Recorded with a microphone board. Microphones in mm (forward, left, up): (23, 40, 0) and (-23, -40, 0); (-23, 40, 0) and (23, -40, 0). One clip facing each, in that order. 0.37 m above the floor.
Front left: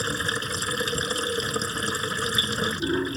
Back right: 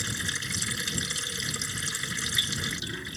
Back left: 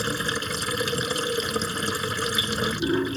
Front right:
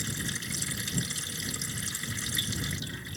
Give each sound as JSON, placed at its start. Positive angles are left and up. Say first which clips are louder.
{"t": 0.0, "sound": "running water", "louder": "front left 8 dB, back left 10 dB", "azimuth_deg": 95}